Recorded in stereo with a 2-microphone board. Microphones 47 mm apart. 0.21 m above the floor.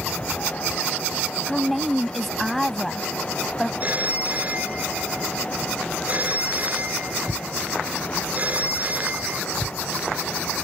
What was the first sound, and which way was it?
A woman speaking, centre (ahead or behind).